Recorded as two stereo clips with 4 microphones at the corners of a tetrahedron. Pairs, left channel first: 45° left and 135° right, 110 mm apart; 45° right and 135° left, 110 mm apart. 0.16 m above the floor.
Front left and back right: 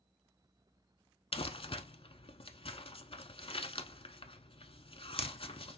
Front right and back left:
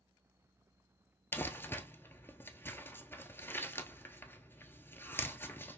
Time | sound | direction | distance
1.3 | crumpling | 20° left | 0.8 m